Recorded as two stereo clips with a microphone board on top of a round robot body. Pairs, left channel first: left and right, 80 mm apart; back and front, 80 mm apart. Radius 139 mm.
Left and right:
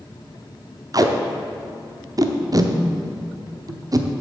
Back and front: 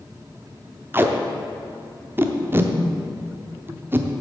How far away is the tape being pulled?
About 0.9 m.